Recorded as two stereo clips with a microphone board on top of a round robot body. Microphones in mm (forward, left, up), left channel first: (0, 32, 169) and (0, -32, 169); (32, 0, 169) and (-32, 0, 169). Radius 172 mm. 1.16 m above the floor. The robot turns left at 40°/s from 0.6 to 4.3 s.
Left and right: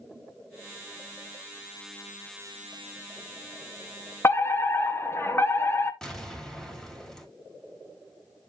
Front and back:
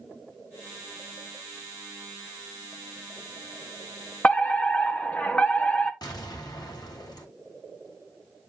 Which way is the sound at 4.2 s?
65° left.